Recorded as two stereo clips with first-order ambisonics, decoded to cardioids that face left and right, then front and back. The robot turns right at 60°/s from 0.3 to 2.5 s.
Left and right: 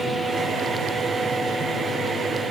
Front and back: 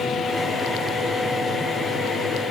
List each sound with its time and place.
Only background noise.